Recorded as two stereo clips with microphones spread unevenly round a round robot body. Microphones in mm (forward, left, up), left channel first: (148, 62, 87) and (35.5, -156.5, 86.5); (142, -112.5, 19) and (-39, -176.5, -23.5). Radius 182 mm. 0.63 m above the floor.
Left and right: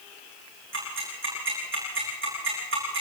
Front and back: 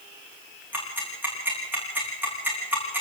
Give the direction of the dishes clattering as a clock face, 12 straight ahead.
I don't hear dishes clattering.